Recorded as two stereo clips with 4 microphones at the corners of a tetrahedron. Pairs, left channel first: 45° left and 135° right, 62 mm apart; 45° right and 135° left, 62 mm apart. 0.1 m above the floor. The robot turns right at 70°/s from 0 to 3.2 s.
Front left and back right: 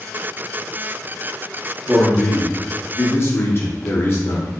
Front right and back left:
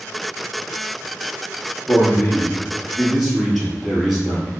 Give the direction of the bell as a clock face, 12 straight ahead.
No bell in this recording.